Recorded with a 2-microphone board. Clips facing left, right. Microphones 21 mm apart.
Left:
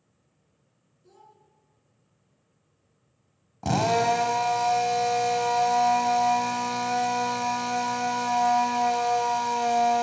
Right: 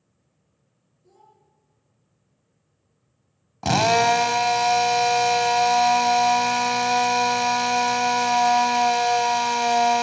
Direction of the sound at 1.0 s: 45° left (ahead or behind).